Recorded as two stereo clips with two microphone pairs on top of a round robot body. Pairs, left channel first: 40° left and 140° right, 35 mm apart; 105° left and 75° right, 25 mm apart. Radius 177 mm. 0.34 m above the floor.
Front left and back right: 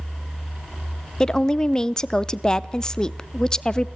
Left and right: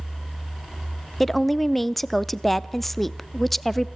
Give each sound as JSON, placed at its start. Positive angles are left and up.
{"t": 1.2, "sound": "a woman speaking", "azimuth_deg": 30, "distance_m": 0.8}